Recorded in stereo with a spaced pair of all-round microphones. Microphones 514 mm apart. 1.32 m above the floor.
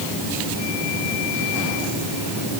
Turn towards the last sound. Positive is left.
No sound to turn to.